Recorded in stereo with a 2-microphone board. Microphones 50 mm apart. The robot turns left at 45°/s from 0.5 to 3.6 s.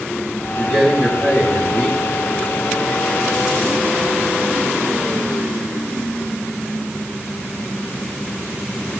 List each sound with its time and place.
0.6 s a man speaking: 30° right, 3.5 m; by 2.0 s 90° right, 3.5 m